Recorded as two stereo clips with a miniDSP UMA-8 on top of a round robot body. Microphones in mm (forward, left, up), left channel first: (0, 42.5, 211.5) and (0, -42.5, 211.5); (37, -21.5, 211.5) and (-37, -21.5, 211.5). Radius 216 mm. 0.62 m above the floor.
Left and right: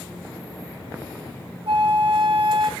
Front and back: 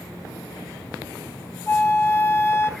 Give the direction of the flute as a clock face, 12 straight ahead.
2 o'clock.